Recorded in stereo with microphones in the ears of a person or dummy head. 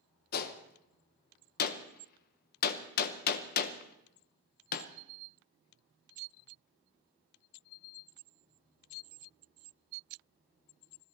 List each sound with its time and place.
0.3 s a gunshot: 50° left (ahead or behind), 1.0 m